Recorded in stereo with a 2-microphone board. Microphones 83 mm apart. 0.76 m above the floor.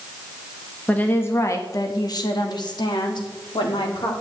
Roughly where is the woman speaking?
Centre.